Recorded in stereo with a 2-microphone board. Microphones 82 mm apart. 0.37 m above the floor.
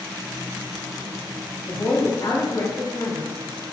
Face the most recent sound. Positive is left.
turn(degrees=35)  # may be behind; listen again after turning